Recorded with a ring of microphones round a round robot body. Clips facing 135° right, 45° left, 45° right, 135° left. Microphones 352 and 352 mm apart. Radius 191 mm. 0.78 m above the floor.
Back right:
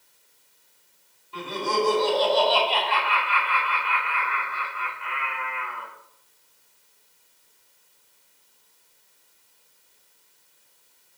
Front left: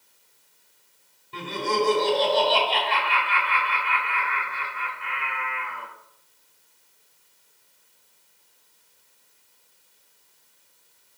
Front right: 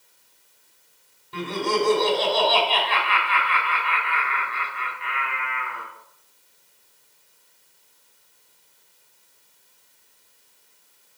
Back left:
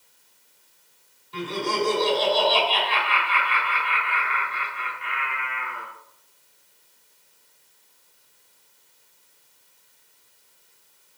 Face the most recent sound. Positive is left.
turn(degrees=-15)